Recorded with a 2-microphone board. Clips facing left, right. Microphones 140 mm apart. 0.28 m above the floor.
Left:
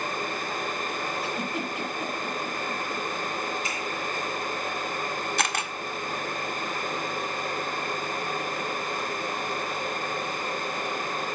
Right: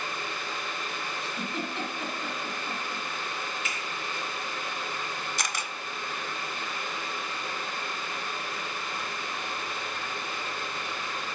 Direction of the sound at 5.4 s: 60° left (ahead or behind).